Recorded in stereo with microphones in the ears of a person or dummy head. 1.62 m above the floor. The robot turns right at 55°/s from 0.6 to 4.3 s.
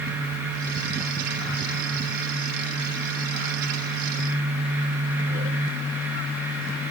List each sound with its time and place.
Only background noise.